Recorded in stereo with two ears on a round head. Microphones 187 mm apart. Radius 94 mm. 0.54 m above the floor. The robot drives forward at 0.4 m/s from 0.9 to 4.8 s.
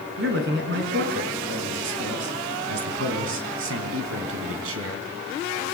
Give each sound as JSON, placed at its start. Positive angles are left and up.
{"t": 0.2, "sound": "a man speaking", "side_deg": -55, "distance_m": 4.5}